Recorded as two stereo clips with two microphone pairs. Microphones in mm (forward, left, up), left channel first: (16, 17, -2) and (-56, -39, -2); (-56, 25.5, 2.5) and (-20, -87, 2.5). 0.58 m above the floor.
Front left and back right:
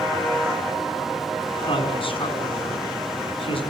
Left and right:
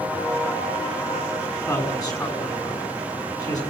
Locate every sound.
1.5 s a man speaking: 50° left, 6 m